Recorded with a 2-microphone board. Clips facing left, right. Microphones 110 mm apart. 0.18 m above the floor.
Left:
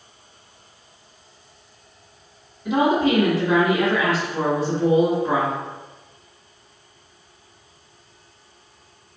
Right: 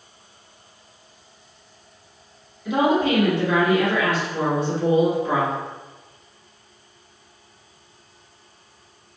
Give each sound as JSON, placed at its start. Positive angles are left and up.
{"t": 2.6, "sound": "a woman speaking", "side_deg": 40, "distance_m": 1.9}